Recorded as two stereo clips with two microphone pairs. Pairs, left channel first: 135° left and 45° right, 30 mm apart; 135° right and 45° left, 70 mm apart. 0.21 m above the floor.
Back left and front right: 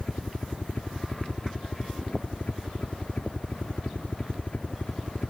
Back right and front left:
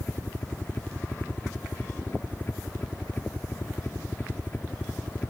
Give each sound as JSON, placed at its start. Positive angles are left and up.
{"t": 0.0, "sound": "a helicopter", "azimuth_deg": 165}